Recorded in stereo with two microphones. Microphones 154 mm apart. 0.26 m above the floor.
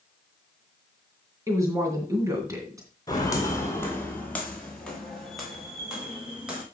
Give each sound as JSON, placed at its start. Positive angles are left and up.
{"t": 1.5, "sound": "a woman speaking", "side_deg": -20, "distance_m": 3.0}
{"t": 3.1, "sound": "footsteps", "side_deg": 25, "distance_m": 3.5}